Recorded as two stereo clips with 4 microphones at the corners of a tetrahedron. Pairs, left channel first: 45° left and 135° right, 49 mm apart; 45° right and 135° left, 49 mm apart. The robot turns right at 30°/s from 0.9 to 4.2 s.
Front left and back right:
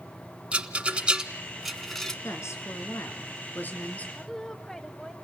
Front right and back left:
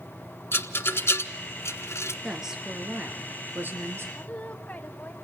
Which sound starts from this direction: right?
A rattle, at 0.5 s.